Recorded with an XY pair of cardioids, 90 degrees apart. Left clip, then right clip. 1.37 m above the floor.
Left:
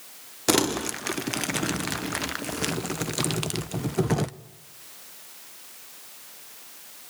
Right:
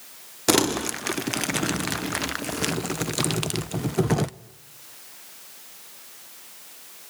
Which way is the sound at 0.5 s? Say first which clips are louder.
Right 2 dB; 10° right.